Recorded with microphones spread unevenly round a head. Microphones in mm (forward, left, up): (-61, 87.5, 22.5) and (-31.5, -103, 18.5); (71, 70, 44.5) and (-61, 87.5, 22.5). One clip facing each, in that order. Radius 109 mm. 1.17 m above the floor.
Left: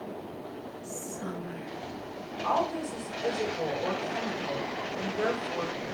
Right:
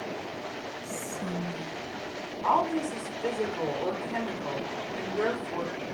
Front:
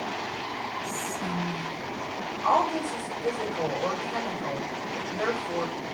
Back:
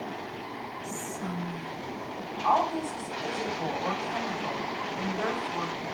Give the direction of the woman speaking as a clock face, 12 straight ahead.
2 o'clock.